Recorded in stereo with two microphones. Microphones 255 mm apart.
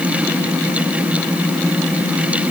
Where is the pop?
I don't hear a pop.